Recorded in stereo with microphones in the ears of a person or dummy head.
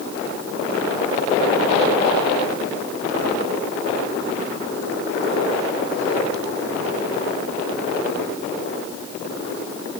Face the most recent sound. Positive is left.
No sound to turn to.